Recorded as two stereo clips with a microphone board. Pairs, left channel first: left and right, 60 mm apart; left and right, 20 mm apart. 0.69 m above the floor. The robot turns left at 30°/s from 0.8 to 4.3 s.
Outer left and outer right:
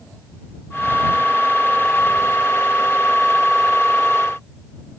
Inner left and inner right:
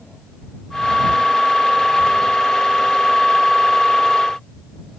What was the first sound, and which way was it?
Only background noise.